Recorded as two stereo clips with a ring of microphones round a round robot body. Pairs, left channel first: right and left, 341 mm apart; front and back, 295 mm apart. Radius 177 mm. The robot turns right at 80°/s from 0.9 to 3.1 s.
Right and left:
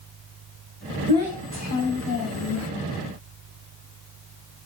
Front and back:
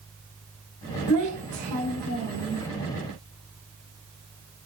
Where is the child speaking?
160° left, 2.5 m; by 2.7 s 70° right, 2.5 m.